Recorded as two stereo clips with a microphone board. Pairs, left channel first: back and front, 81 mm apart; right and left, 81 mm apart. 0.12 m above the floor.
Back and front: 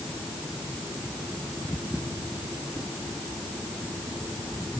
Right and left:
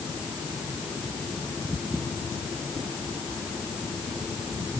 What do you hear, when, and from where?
Only background noise.